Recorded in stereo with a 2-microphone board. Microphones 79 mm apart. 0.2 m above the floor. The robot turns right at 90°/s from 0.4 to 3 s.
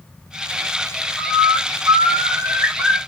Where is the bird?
160° right, 0.8 m; by 3.0 s 5° left, 0.8 m.